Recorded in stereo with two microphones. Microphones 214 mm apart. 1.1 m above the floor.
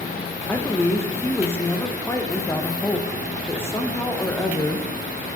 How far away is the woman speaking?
About 0.7 m.